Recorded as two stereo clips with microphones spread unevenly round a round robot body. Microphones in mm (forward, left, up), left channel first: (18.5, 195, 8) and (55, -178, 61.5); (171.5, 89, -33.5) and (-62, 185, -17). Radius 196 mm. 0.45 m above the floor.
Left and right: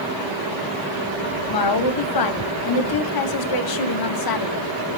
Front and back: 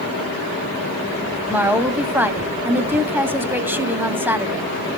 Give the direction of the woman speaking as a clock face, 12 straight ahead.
10 o'clock.